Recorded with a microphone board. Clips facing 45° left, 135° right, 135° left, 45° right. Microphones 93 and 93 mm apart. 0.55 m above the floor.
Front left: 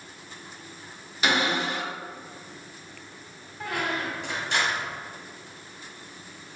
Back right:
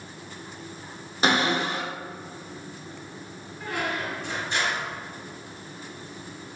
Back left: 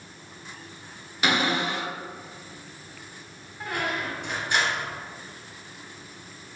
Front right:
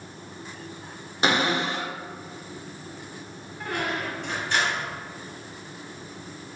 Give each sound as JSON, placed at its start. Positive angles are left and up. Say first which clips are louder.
{"t": 1.2, "sound": "a cupboard door", "louder": "back right 2 dB, front right 1 dB", "azimuth_deg": -95, "distance_m": 0.8}
{"t": 3.6, "sound": "a squeak", "louder": "even, even", "azimuth_deg": 60, "distance_m": 1.5}